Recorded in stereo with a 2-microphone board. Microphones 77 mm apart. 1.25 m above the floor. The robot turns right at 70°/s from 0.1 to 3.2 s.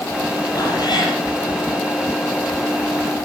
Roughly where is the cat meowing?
Ahead left.